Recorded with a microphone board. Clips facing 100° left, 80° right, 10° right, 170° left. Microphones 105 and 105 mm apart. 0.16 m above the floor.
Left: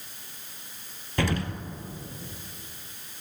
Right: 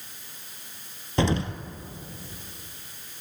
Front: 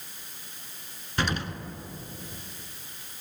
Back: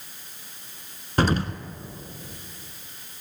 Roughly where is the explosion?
Behind right.